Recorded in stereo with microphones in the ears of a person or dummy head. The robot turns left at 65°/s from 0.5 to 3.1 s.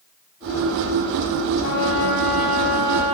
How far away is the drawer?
No drawer in this recording.